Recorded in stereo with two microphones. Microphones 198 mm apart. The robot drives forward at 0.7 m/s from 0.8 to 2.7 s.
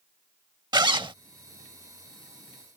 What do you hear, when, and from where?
0.7 s a zipper: 20° right (ahead or behind); by 1.1 s 25° right (ahead or behind)